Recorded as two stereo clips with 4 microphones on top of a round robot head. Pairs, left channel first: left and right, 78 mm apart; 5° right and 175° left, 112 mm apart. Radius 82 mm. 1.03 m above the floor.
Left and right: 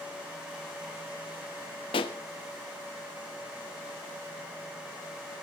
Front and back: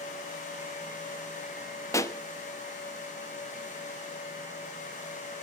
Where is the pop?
60° left, 1.2 m.